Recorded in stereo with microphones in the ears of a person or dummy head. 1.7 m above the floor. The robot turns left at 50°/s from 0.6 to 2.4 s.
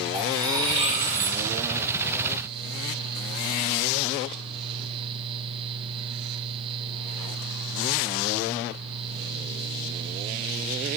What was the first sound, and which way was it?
Cutlery clinking, 25° right.